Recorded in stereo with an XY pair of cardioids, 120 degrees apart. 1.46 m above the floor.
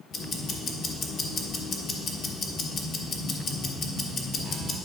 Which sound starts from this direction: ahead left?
Ticking, at 0.1 s.